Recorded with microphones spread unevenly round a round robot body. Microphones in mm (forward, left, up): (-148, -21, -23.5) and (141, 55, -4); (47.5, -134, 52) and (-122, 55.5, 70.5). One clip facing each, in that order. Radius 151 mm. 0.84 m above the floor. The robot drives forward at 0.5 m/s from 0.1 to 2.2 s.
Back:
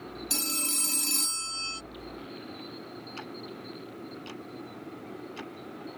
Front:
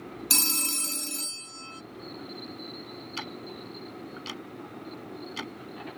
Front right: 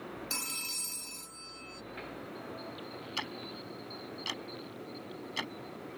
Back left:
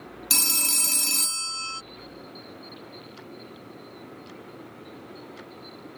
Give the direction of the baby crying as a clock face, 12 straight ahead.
No baby crying in this recording.